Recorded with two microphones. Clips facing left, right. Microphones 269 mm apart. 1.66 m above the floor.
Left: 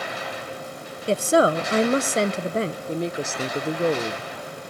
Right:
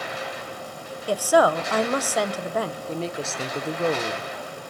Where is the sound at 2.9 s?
15° left (ahead or behind), 0.7 m.